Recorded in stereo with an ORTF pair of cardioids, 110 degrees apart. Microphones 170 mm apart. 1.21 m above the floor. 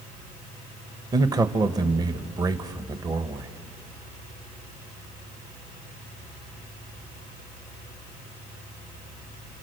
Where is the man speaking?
20° right, 1.0 m.